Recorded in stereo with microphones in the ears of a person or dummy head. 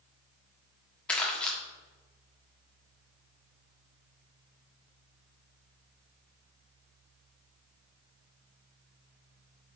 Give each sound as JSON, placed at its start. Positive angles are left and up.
{"t": 1.1, "sound": "crumpling", "side_deg": 10, "distance_m": 1.5}